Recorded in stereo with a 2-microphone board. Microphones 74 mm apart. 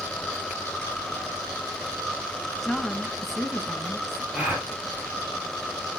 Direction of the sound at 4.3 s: 20° right (ahead or behind).